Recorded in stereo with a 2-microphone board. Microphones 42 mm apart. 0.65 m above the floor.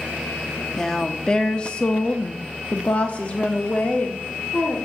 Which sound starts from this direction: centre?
A woman speaking, at 0.8 s.